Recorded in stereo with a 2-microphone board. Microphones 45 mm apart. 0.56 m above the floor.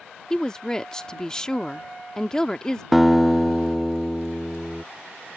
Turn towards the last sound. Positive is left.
turn(degrees=-5)  # may be behind; listen again after turning